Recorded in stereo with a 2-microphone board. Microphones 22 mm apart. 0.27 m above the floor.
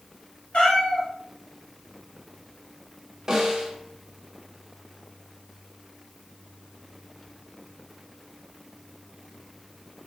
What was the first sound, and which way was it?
A cat meowing, 80° left.